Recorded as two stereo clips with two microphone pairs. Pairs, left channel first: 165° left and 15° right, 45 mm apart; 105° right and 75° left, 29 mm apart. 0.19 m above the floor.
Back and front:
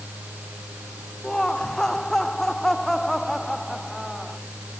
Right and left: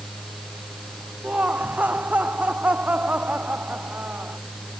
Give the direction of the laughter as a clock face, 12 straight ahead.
9 o'clock.